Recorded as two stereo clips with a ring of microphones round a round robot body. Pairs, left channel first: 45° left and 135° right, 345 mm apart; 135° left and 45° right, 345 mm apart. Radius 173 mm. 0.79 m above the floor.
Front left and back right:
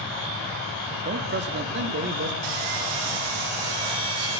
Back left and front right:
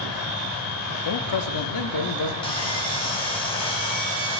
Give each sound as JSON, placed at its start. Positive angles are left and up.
{"t": 1.1, "sound": "a man speaking", "azimuth_deg": 165, "distance_m": 1.0}
{"t": 2.4, "sound": "sawing", "azimuth_deg": -150, "distance_m": 3.5}